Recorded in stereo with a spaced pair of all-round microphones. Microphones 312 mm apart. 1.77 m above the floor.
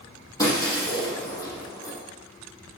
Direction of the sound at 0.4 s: 10° left (ahead or behind).